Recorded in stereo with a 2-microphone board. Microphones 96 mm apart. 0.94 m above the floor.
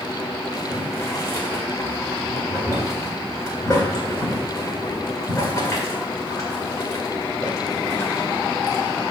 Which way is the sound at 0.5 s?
35° left (ahead or behind).